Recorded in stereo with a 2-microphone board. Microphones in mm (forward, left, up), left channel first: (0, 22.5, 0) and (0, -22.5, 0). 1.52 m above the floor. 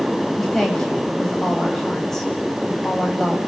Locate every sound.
0.4 s a woman speaking: 10° left (ahead or behind), 8.5 m